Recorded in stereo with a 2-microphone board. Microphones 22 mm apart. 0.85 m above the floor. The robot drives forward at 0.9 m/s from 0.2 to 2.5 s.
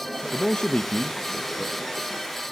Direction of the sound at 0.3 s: 40° left (ahead or behind).